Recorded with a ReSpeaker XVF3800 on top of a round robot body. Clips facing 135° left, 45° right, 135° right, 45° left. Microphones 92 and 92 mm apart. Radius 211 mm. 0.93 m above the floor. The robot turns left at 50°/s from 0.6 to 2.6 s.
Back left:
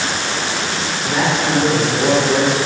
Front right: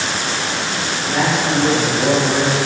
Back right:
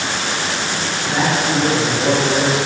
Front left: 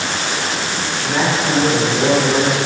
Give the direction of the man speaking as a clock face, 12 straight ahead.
8 o'clock.